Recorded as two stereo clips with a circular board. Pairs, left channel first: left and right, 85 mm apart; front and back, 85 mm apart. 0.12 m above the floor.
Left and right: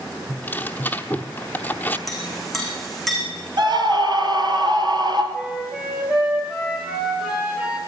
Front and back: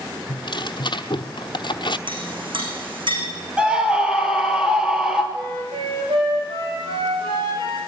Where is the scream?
100° right, 2.5 m.